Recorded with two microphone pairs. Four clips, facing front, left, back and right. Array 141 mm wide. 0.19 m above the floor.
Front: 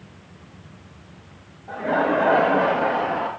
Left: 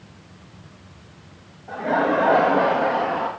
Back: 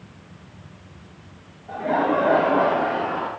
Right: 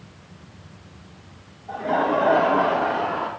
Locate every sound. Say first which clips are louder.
1.7 s laughter: left 1 dB, even; 40° left, 2.5 m; by 3.3 s 35° left, 3 m